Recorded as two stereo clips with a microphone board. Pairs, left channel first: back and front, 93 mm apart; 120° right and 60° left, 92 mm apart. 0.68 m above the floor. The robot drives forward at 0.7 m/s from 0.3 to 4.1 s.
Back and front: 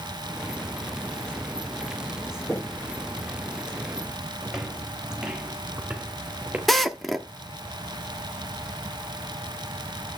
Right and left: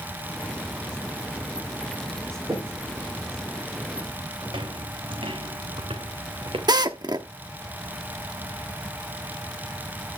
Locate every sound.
2.5 s knocking: 110° left, 9 m; by 2.9 s 115° left, 9 m
4.4 s footsteps: 85° left, 2 m; by 6.6 s 75° left, 4 m
6.7 s a drill: 90° left, 0.9 m